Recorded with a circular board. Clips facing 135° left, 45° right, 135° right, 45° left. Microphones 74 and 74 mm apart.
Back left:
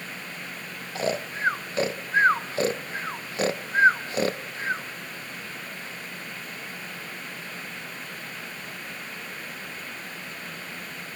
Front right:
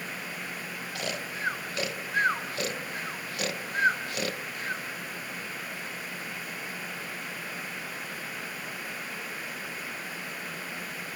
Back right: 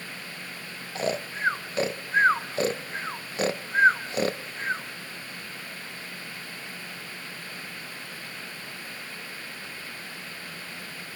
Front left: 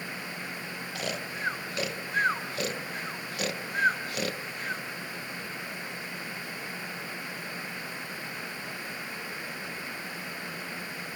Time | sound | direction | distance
0.9 | snoring | straight behind | 0.6 m